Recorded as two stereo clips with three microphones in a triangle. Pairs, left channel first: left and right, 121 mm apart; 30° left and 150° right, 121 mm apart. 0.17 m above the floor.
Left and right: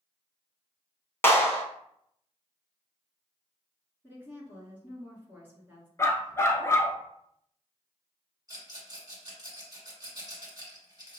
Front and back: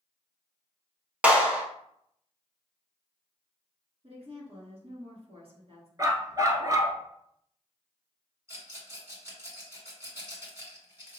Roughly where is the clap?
Behind left.